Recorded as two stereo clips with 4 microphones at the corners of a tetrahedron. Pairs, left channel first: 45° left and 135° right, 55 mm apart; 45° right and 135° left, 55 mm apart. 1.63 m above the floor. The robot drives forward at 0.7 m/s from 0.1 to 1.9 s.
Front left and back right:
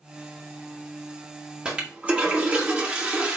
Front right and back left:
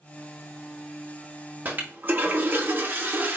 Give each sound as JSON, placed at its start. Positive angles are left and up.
{"t": 1.6, "sound": "a toilet flushing", "azimuth_deg": 170, "distance_m": 1.1}